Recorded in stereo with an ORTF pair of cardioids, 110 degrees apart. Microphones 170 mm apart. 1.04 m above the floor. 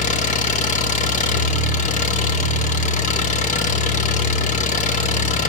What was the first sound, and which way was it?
An engine running, 45° left.